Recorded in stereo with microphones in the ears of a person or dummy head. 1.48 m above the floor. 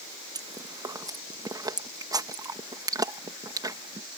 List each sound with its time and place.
0.3 s chewing: 20° right (ahead or behind)